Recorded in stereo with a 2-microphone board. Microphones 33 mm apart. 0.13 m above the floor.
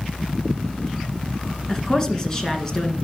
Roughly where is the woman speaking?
Centre.